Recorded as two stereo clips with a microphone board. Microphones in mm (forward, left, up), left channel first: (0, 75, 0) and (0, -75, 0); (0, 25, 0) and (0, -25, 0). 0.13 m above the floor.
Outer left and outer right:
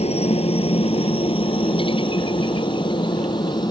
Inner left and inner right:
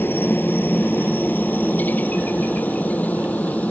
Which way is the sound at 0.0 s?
45° left (ahead or behind).